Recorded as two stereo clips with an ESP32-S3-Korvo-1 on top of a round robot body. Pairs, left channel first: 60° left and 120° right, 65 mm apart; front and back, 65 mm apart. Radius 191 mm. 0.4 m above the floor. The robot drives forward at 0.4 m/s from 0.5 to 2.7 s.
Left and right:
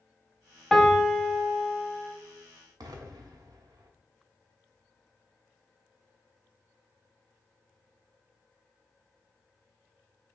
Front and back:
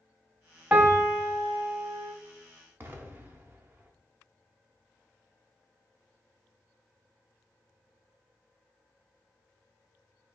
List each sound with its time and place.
0.7 s a piano: 145° left, 0.9 m; by 2.1 s 165° left, 1.2 m
2.8 s an explosion: 120° right, 0.6 m